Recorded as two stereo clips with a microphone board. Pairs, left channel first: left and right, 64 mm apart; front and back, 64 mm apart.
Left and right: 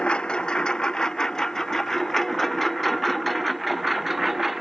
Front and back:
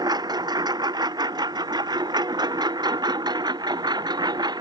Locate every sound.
0.0 s a lawn mower: 165° left; by 4.6 s 175° right